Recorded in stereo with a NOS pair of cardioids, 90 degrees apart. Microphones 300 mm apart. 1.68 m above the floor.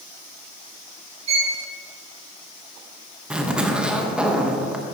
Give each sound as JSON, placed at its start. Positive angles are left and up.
{"t": 1.3, "sound": "a violin", "azimuth_deg": -60, "distance_m": 2.5}
{"t": 3.3, "sound": "a zipper", "azimuth_deg": -5, "distance_m": 1.1}